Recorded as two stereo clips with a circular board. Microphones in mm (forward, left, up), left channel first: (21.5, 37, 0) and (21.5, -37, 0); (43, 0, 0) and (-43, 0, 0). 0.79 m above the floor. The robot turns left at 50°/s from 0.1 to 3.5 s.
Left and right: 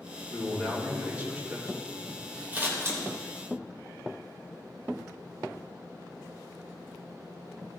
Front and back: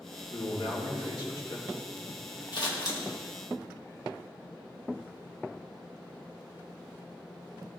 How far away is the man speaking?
About 2 m.